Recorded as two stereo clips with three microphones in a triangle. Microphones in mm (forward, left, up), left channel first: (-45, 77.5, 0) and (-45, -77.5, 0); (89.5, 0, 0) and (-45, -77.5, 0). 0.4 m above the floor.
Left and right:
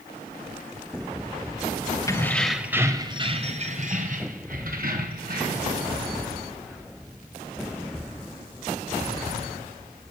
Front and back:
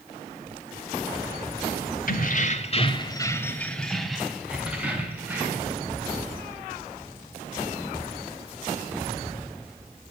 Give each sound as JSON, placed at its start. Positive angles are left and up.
{"t": 2.1, "sound": "keys jangling", "azimuth_deg": 25, "distance_m": 1.3}